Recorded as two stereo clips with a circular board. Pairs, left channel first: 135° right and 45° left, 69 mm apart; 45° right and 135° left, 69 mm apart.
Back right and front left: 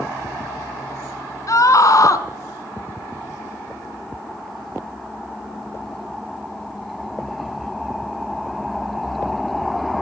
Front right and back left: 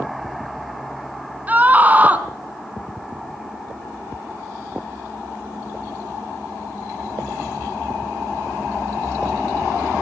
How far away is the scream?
About 3 m.